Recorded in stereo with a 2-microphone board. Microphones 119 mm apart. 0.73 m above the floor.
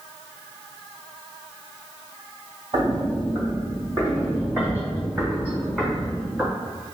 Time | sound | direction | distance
2.7 | footsteps | 40° right (ahead or behind) | 1.0 m